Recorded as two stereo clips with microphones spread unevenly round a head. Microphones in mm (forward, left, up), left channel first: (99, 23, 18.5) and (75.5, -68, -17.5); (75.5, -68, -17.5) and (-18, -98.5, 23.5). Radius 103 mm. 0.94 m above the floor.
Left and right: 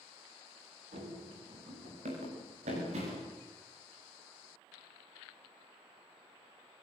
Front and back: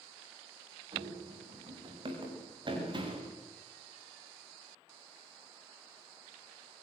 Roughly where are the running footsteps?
Behind right.